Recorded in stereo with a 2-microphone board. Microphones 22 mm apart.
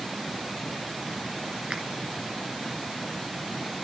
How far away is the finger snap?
About 1.8 m.